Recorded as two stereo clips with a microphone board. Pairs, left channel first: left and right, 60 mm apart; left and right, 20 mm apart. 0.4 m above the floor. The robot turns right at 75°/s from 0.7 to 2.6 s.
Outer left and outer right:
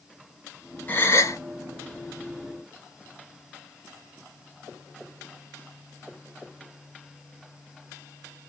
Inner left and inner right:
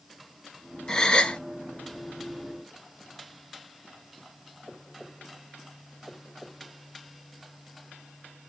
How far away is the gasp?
About 1.9 m.